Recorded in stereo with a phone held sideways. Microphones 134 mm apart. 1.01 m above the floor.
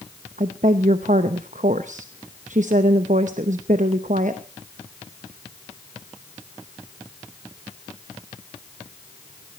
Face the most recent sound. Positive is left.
turn(degrees=-70)  # may be behind; listen again after turning